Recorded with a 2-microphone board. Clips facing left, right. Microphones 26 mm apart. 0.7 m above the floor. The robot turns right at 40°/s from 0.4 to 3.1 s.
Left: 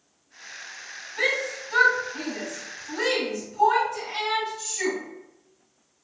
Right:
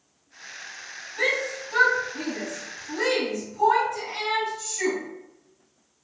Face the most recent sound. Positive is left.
turn(degrees=35)  # may be behind; listen again after turning